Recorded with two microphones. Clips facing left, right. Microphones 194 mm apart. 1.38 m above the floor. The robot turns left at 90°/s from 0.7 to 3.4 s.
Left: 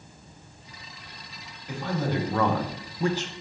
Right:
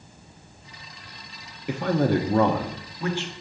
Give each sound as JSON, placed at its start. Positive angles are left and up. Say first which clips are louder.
{"t": 1.7, "sound": "a man speaking", "louder": "right 7 dB", "azimuth_deg": -85, "distance_m": 0.9}